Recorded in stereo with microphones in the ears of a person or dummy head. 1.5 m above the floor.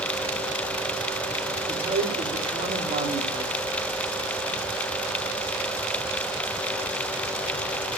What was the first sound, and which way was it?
A man speaking, 35° right (ahead or behind).